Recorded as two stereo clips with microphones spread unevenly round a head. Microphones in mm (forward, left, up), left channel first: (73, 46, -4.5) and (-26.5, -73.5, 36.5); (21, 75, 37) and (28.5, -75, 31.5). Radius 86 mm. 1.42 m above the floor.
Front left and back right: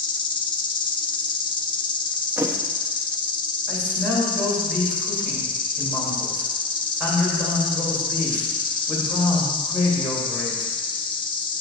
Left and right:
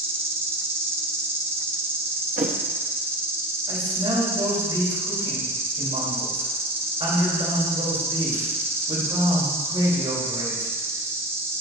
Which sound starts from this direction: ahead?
An insect, at 0.0 s.